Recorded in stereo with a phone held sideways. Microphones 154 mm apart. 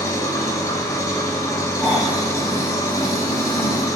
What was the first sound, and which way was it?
An engine running, 20° left (ahead or behind).